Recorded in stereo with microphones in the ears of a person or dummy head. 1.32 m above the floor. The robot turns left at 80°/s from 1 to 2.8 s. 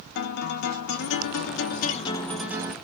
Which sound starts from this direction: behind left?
A guitar, at 0.1 s.